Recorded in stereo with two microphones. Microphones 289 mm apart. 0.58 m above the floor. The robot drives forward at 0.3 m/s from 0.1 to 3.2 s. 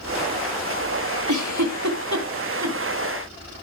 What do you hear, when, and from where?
1.3 s a giggle: 80° right, 2 m; by 2.8 s 65° right (ahead or behind), 2 m